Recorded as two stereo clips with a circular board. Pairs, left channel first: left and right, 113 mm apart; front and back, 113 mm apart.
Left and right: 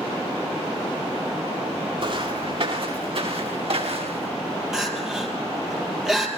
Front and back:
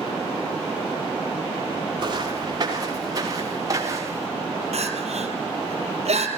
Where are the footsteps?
130° right, 8 m; by 4.3 s 120° right, 6.5 m.